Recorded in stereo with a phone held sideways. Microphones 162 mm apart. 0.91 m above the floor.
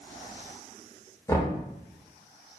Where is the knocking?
20° left (ahead or behind), 0.7 m.